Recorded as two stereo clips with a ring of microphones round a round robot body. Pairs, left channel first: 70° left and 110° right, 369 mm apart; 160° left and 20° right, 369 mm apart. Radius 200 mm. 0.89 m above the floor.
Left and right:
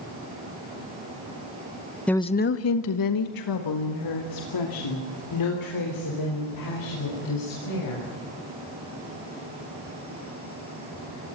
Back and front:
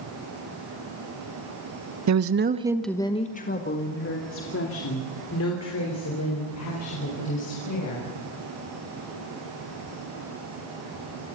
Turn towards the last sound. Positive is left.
turn(degrees=110)